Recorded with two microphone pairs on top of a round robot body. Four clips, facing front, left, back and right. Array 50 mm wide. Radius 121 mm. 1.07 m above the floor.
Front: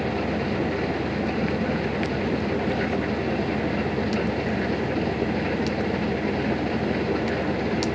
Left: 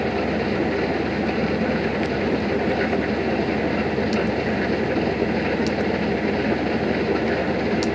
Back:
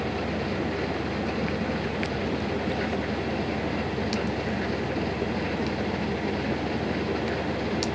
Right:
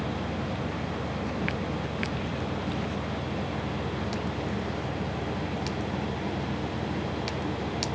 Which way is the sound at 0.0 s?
80° left.